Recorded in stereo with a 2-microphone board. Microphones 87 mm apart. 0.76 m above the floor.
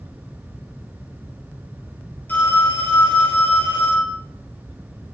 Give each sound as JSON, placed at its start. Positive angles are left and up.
{"t": 2.3, "sound": "a phone ringing", "side_deg": 20, "distance_m": 4.5}